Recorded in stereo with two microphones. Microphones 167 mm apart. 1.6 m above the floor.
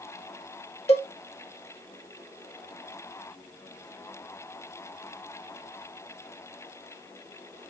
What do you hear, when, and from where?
0.9 s a cowbell: 40° left (ahead or behind), 1.1 m